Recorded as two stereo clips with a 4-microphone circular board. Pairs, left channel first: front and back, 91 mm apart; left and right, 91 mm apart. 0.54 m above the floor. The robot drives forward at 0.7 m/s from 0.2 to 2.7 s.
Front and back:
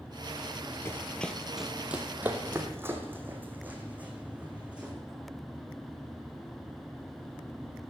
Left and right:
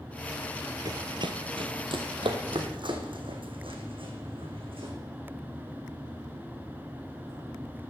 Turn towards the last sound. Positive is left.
turn(degrees=-100)